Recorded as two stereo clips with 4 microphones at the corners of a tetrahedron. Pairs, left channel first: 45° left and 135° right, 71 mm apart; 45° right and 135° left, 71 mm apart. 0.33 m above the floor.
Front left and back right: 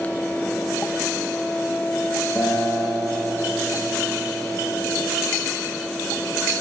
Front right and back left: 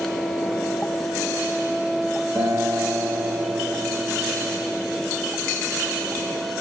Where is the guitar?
120° left, 5.5 m.